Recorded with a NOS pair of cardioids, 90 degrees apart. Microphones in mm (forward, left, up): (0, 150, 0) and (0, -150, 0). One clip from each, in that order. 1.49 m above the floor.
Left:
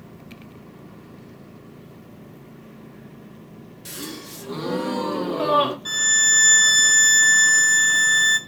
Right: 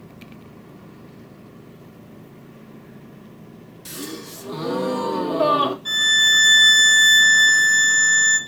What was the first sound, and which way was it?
A gasp, straight ahead.